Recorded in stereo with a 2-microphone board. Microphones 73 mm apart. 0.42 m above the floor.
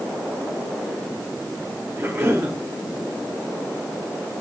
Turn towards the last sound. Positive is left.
turn(degrees=-30)  # may be behind; listen again after turning